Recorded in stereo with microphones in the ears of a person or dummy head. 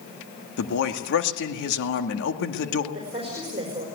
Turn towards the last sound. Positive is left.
turn(degrees=-25)  # may be behind; listen again after turning